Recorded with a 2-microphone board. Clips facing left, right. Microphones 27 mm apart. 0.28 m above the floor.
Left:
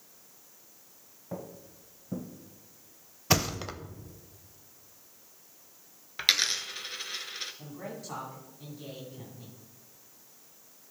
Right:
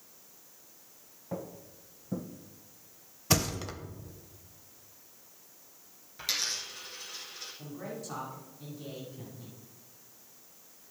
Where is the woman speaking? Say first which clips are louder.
Even; 20° left (ahead or behind), 2 m.